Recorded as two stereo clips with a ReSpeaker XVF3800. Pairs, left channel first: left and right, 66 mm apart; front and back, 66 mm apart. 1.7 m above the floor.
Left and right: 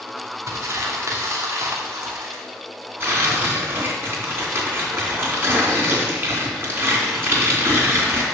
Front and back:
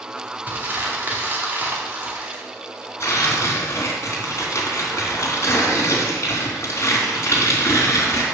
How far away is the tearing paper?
About 3 m.